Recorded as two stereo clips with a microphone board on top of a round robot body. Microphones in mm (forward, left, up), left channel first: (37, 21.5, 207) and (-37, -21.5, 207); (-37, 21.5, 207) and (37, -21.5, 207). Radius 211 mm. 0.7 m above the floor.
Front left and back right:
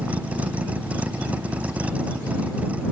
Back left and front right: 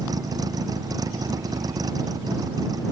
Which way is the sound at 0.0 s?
75° right.